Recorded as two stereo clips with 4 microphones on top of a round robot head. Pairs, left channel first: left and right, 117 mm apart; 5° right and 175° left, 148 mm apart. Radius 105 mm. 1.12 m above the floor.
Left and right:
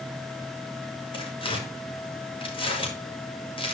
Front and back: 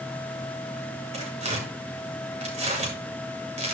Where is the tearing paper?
135° left, 5 m.